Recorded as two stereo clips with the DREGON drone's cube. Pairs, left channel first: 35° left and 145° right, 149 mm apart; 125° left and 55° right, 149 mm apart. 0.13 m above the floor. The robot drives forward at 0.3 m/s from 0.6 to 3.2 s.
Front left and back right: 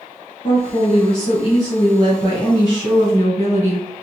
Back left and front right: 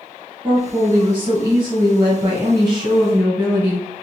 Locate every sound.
0.4 s a woman speaking: 10° left, 2.0 m; by 3.9 s 20° left, 1.6 m